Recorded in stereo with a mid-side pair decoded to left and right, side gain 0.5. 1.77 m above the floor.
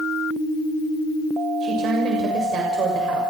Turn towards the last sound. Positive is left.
turn(degrees=-60)